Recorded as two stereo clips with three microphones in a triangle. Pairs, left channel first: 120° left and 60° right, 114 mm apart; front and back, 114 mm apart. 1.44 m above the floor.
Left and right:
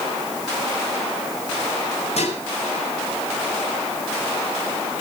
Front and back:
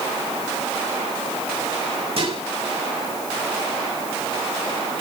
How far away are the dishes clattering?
About 6 m.